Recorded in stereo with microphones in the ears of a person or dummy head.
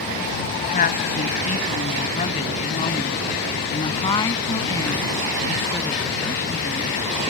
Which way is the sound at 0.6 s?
45° left (ahead or behind).